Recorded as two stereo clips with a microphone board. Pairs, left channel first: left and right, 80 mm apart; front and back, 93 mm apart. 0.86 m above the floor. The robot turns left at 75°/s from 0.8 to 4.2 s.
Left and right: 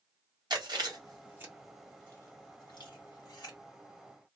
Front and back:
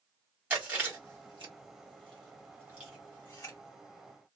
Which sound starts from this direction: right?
Chewing, at 0.5 s.